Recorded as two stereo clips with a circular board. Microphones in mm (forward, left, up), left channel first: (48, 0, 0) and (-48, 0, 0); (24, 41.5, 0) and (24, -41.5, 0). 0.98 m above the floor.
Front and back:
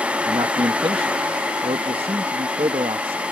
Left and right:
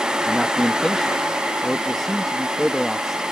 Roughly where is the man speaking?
Behind.